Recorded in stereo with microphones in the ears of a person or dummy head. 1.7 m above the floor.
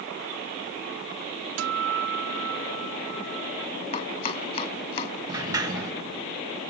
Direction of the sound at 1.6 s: 70° right (ahead or behind).